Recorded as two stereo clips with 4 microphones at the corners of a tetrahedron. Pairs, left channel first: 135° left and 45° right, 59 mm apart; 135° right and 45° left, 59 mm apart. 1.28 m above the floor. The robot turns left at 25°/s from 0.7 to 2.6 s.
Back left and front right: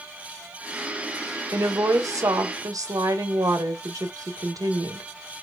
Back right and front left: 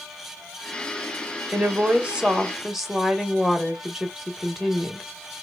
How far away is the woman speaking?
About 1.2 m.